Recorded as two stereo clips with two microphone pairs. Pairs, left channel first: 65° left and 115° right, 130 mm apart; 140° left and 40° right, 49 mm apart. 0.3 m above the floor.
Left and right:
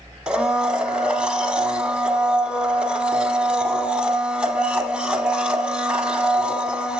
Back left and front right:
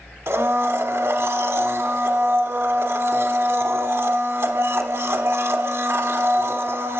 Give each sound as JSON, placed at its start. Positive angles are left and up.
{"t": 0.3, "sound": "a blender", "azimuth_deg": -30, "distance_m": 0.9}